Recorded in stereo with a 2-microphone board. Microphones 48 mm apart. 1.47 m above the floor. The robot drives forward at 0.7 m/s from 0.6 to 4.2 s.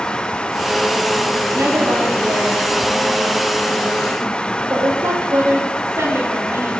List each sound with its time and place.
1.5 s a woman speaking: 85° right, 5 m; by 6.8 s 65° right (ahead or behind), 5.5 m